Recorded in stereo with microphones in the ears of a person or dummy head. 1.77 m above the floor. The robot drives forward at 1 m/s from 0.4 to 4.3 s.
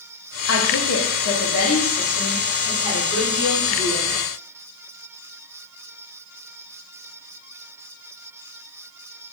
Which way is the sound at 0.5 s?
75° left (ahead or behind).